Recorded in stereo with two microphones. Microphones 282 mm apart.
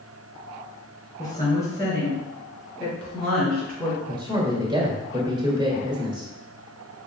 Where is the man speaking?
15° right (ahead or behind), 1.5 m.